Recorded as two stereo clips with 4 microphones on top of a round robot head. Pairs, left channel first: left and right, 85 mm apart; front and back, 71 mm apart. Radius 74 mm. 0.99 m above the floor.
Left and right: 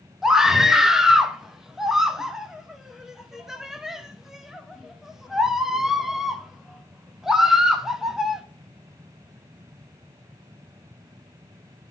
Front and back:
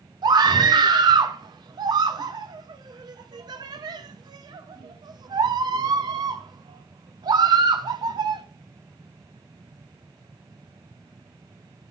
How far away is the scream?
About 1.3 m.